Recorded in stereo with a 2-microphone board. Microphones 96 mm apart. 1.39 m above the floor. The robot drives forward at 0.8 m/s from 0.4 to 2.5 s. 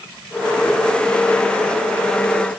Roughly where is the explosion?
I don't hear an explosion.